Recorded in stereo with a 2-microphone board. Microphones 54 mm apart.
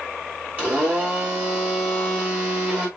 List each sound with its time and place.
0.6 s a blender: 25° right (ahead or behind), 2 m